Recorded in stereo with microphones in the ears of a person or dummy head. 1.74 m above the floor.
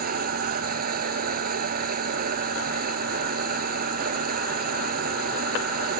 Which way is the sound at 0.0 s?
50° right (ahead or behind).